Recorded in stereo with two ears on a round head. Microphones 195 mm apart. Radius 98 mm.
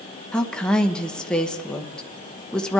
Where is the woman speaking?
5° left (ahead or behind), 1.0 m.